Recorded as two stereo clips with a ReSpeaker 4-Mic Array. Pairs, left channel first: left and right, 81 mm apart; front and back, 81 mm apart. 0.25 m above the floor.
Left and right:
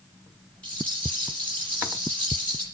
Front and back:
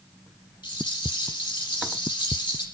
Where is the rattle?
20° left, 7 m.